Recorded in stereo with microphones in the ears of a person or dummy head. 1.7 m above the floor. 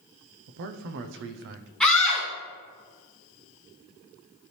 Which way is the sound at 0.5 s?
60° right (ahead or behind).